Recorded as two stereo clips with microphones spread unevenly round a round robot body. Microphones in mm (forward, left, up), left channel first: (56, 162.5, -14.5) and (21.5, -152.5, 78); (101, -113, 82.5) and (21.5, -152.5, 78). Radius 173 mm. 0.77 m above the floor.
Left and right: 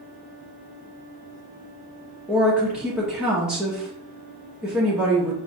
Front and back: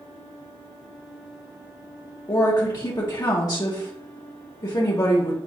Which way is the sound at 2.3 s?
10° left.